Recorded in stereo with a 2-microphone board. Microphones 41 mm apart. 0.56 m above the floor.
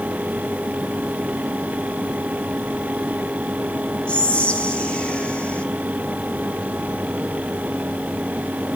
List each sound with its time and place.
4.1 s whispering: 30° left (ahead or behind), 0.7 m